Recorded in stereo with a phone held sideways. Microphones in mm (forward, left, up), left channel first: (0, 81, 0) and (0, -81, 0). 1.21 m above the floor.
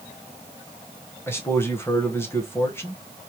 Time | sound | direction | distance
1.3 | a man speaking | 15° left (ahead or behind) | 0.8 m